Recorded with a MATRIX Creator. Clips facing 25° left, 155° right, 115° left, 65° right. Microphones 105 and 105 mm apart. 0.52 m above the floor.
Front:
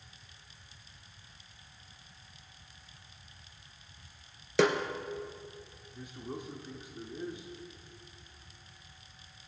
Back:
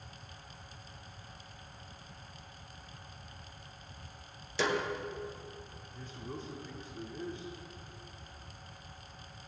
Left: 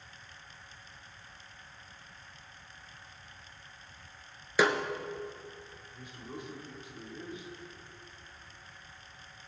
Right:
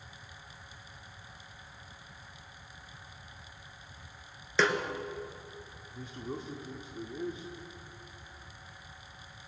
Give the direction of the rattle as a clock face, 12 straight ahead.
No rattle in this recording.